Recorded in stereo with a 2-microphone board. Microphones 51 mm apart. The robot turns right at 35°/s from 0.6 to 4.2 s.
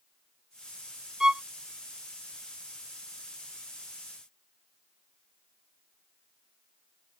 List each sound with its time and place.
1.2 s a violin: 10° right (ahead or behind); by 1.4 s 20° right (ahead or behind)